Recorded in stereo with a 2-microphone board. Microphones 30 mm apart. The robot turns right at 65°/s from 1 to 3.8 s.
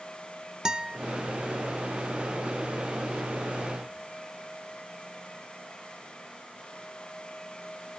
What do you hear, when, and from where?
0.7 s a guitar: 25° right (ahead or behind), 0.5 m